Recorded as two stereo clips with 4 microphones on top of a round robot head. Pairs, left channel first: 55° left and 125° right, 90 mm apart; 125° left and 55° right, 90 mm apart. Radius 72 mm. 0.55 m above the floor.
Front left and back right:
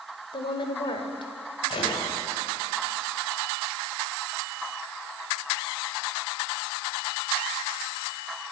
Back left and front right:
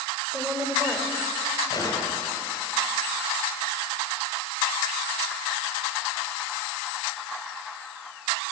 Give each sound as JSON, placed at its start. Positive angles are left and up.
{"t": 0.3, "sound": "a woman speaking", "azimuth_deg": 25, "distance_m": 2.0}
{"t": 1.7, "sound": "a gunshot", "azimuth_deg": 80, "distance_m": 2.5}